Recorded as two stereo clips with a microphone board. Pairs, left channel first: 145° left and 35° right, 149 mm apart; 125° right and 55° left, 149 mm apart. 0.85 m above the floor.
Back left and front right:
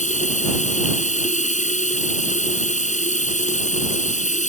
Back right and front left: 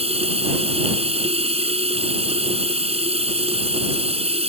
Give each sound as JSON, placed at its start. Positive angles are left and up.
{"t": 0.0, "sound": "running water", "azimuth_deg": 105}